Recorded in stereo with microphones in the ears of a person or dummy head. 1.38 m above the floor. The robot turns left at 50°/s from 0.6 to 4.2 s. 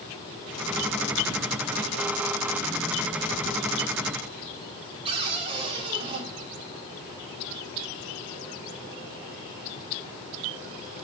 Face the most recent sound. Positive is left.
turn(degrees=-30)  # may be behind; listen again after turning